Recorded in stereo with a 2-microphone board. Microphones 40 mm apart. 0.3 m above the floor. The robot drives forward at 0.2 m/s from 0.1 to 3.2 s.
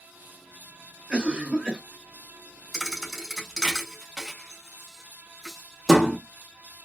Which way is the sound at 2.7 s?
Centre (ahead or behind).